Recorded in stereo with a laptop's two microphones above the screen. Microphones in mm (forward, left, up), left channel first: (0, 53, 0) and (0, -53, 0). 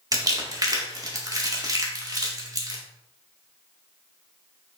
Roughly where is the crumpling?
Right.